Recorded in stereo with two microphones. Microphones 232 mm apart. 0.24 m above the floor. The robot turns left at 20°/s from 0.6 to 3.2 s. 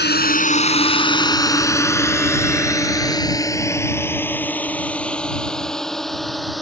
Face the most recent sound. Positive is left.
turn(degrees=0)  # may be behind; listen again after turning